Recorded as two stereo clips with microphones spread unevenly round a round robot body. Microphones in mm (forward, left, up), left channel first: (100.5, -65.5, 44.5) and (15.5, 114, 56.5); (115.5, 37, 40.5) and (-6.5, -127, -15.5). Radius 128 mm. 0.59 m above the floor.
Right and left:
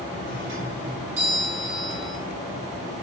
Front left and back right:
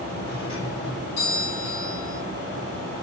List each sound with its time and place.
0.3 s a doorbell: 100° left, 4 m